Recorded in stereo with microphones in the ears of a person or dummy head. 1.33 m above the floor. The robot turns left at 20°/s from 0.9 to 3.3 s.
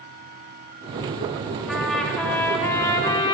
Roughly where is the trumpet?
Behind.